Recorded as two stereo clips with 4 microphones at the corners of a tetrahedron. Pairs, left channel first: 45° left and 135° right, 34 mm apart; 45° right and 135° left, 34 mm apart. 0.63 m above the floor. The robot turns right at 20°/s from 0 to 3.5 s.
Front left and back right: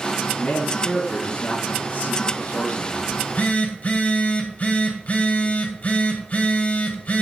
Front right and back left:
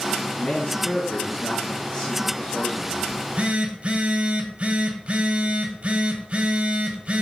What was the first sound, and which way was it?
A man speaking, 15° right.